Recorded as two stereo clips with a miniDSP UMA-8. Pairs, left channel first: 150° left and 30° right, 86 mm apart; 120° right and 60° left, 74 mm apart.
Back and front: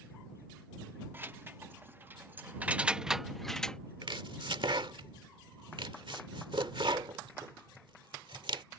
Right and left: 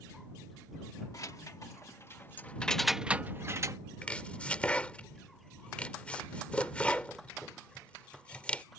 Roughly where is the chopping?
Ahead right.